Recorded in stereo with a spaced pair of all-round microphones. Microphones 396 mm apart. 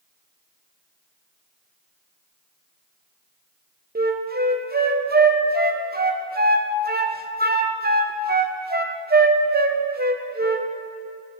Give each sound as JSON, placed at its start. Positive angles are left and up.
{"t": 4.0, "sound": "a flute", "side_deg": -25, "distance_m": 0.5}